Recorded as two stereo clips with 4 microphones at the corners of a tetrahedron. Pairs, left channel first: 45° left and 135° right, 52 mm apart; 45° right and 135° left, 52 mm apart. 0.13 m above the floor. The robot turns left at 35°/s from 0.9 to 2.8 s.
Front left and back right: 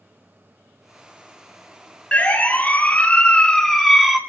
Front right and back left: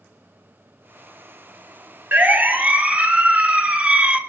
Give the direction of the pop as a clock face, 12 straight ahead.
No pop in this recording.